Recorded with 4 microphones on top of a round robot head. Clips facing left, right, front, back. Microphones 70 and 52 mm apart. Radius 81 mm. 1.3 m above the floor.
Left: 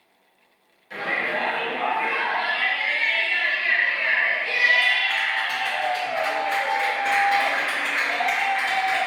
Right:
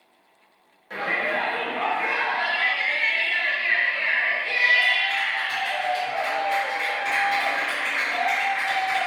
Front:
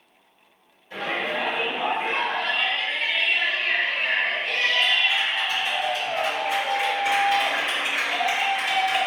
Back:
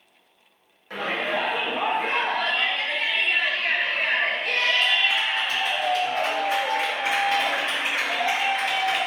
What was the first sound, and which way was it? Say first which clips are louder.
A shout: right 1 dB, back 1 dB; 140° right.